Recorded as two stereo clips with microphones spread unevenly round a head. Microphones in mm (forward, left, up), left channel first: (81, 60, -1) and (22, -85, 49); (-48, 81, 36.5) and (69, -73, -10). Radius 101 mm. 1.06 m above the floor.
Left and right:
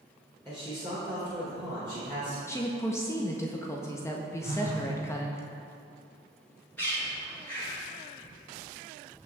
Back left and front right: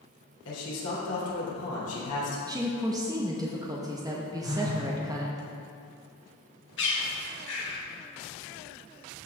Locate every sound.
0.5 s a man speaking: 145° left, 3 m
2.5 s a woman speaking: 10° left, 0.9 m
4.4 s a phone buzzing: 70° right, 3 m
6.8 s a bird: 150° left, 1.7 m